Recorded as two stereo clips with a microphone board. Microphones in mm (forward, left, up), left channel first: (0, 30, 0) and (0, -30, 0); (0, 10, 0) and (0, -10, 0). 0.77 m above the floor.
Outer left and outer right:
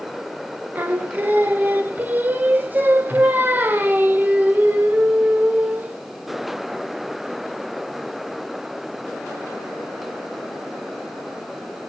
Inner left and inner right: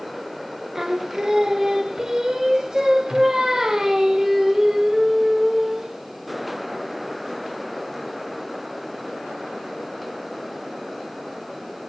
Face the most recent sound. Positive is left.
turn(degrees=-30)  # may be behind; listen again after turning